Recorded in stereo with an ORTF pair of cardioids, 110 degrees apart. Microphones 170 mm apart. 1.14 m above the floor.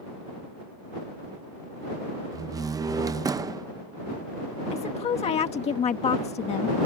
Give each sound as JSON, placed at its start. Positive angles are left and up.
{"t": 2.3, "sound": "a door slam", "azimuth_deg": -20}
{"t": 4.7, "sound": "a woman speaking", "azimuth_deg": 40}